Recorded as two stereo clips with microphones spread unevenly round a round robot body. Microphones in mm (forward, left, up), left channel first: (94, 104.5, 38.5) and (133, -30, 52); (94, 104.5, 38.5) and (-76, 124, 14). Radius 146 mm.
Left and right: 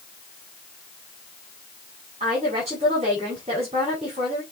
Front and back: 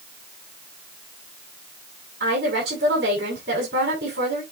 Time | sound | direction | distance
2.2 | a woman speaking | 140° right | 7.5 m